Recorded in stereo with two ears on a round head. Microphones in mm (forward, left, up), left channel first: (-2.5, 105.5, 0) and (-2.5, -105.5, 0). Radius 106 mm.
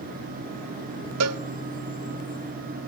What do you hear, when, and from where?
1.2 s a cowbell: 75° right (ahead or behind), 0.7 m